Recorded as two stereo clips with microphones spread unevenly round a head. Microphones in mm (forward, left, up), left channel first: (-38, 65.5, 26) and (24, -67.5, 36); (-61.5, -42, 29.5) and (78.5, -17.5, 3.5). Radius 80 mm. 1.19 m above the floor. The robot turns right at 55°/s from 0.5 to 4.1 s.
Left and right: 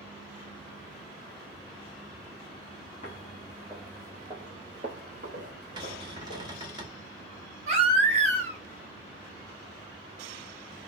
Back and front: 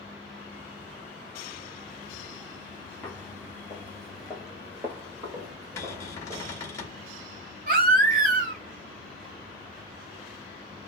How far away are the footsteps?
About 1.4 m.